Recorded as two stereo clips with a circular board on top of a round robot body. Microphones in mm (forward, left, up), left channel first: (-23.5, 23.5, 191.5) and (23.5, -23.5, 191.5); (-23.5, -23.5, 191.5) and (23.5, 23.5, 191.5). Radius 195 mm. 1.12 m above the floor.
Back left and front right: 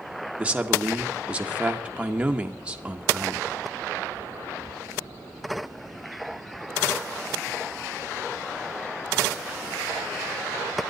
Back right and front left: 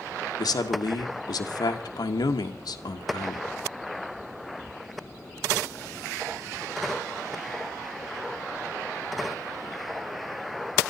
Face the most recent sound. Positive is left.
turn(degrees=-120)